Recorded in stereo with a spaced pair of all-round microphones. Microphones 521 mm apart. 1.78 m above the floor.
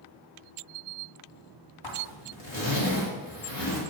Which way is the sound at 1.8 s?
55° left (ahead or behind).